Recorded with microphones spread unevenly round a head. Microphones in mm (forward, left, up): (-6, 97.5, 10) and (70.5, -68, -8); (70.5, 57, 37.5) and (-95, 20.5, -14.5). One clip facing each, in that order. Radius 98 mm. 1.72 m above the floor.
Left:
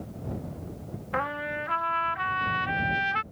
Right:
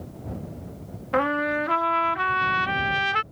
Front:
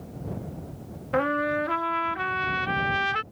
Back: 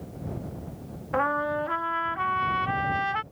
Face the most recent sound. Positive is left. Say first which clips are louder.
# right 9 dB, front 2 dB
turn(degrees=-40)